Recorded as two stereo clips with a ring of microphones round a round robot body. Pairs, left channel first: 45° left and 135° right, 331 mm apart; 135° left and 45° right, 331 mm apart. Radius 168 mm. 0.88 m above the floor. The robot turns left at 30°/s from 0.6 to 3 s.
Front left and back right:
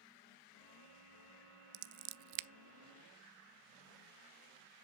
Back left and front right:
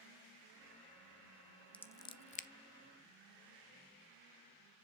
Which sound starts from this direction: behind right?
Scissors, at 1.7 s.